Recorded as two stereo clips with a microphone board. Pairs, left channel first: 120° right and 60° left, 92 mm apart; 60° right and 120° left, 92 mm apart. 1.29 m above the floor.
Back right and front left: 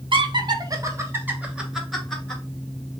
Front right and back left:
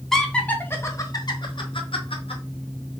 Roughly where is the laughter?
Ahead left.